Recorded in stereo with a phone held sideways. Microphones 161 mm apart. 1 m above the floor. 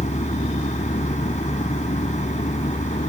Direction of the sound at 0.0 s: 45° left (ahead or behind).